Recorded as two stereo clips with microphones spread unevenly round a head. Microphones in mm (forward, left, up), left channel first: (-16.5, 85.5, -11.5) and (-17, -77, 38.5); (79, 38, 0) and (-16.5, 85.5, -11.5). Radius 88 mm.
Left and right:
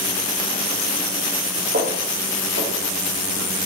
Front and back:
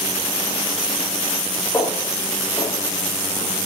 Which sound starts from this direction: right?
Footsteps, at 1.7 s.